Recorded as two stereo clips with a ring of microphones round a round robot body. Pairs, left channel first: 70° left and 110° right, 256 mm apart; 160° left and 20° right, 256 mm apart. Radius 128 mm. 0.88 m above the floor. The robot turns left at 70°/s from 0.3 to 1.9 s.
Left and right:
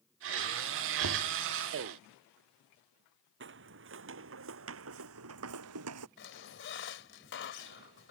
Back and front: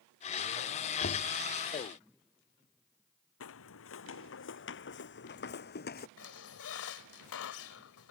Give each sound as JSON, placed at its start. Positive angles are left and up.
{"t": 1.0, "sound": "knocking", "azimuth_deg": -145}
{"t": 3.4, "sound": "footsteps", "azimuth_deg": -160}
{"t": 6.2, "sound": "a squeak", "azimuth_deg": 115}